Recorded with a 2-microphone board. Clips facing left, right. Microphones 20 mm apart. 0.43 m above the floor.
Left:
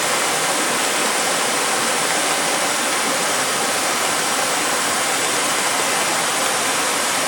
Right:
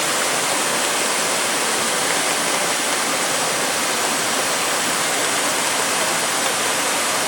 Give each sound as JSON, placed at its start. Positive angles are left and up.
{"t": 0.0, "sound": "running water", "side_deg": 70, "distance_m": 3.0}